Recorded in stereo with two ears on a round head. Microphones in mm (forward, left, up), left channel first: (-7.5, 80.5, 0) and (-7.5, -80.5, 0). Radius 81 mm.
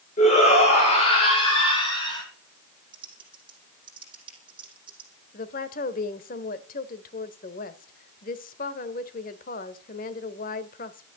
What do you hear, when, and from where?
0.2 s a shout: 40° left (ahead or behind), 6 m; by 2.2 s 25° left (ahead or behind), 6.5 m
2.9 s typing on a keyboard: 30° right (ahead or behind), 5.5 m
5.3 s a woman speaking: 50° left (ahead or behind), 1.5 m